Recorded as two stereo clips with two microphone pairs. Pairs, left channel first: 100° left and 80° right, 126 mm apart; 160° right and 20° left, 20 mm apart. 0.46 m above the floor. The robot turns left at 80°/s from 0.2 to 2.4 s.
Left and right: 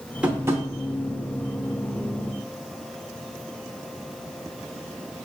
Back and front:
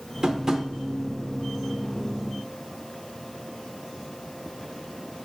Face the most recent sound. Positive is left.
turn(degrees=-175)